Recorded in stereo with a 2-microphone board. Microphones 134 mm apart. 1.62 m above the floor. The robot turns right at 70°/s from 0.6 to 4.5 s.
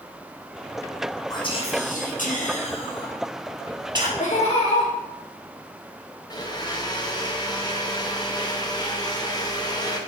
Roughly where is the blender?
Left.